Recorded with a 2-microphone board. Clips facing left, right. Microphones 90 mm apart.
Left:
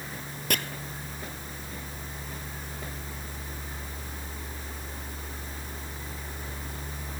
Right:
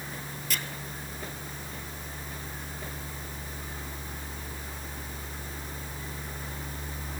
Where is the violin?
No violin in this recording.